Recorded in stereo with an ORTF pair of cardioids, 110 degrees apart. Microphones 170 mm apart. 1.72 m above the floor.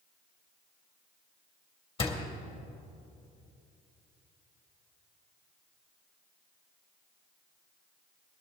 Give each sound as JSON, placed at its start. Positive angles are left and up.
{"t": 2.0, "sound": "a door slam", "azimuth_deg": 30, "distance_m": 2.0}